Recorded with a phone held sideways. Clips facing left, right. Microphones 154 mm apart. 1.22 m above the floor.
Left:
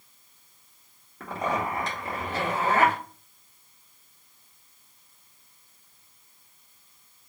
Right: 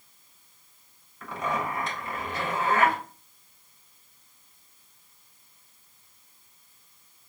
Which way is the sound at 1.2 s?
80° left.